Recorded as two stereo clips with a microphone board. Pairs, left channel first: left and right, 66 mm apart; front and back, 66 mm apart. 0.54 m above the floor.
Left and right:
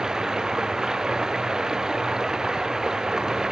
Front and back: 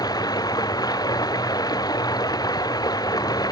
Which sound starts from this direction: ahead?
Running water, at 0.0 s.